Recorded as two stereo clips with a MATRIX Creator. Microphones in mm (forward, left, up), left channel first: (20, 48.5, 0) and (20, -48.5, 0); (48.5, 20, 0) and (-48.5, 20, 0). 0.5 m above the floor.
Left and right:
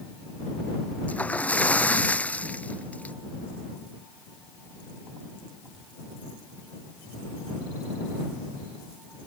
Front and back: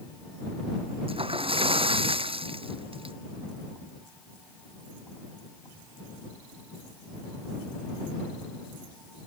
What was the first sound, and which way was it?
A splash, 165° left.